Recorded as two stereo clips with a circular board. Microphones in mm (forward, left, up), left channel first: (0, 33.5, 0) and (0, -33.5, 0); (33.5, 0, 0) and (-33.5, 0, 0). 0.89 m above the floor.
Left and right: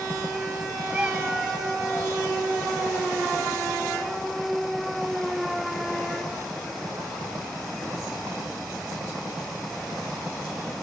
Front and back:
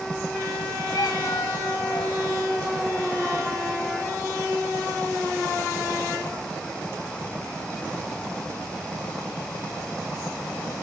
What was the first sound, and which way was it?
A cat meowing, 15° right.